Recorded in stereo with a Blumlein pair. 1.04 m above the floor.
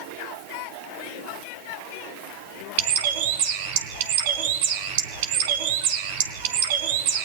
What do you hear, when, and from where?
2.8 s a bird: 50° right, 3 m